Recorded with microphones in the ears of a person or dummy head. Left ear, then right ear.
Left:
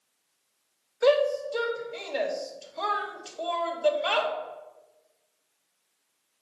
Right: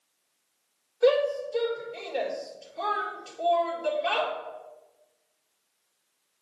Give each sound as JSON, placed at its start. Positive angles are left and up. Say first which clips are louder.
{"t": 1.0, "sound": "a shout", "louder": "even", "side_deg": 50, "distance_m": 1.6}